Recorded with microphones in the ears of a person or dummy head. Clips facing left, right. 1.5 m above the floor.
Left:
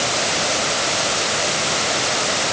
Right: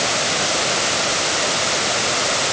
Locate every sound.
Only background noise.